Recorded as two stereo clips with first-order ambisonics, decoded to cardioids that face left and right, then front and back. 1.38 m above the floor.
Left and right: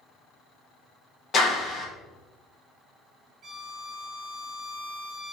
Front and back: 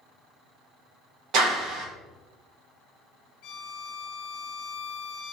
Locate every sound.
1.3 s a clap: 150° left, 1.1 m
3.4 s a violin: 35° right, 0.7 m